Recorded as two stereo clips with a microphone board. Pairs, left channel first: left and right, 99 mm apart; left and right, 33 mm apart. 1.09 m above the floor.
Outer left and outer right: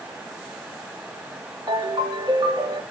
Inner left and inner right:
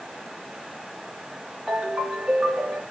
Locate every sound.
1.7 s a ringtone: 55° right (ahead or behind), 4.5 m